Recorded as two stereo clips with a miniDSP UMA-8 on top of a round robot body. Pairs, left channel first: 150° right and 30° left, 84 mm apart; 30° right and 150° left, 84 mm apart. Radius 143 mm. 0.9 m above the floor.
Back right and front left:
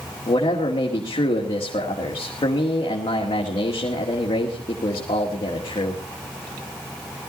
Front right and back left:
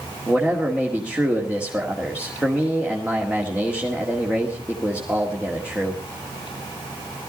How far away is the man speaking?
About 2 m.